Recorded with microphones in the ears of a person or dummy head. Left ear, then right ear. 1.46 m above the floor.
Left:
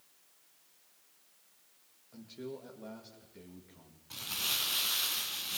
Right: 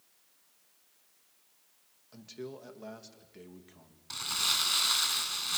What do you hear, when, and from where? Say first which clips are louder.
2.1 s a man speaking: right 1 dB; 70° right (ahead or behind), 2.5 m
4.1 s crumpling: right 5 dB; 50° right (ahead or behind), 2.5 m